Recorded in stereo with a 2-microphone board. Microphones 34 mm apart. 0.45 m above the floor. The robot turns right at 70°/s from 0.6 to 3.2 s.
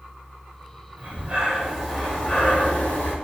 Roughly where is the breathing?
Ahead right.